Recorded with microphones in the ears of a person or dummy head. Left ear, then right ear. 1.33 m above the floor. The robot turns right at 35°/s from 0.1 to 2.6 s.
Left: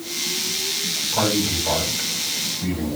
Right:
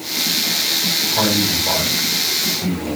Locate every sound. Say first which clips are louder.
1.1 s a man speaking: right 4 dB; 175° left, 7 m; by 3.0 s 135° right, 7 m